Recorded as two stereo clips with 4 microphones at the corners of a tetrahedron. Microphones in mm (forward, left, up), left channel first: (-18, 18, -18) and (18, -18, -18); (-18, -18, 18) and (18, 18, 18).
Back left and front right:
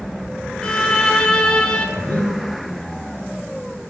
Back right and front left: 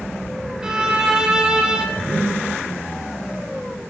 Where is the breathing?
Straight behind, 1.9 m.